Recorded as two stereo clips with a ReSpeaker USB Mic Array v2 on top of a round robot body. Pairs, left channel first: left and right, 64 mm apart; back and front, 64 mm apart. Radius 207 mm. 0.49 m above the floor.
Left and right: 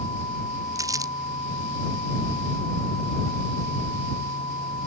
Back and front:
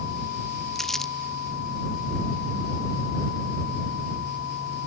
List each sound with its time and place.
0.8 s crumpling: 95° right